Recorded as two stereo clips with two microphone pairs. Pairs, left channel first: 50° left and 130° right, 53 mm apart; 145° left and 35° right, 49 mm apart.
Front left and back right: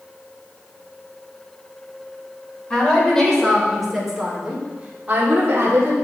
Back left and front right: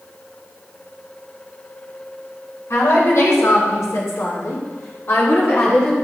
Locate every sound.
2.7 s a woman speaking: 120° left, 3.5 m; by 5.9 s 165° right, 2 m